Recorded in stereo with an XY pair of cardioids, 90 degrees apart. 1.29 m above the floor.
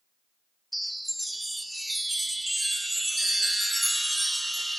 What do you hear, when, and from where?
0.7 s a chime: 10° right, 0.6 m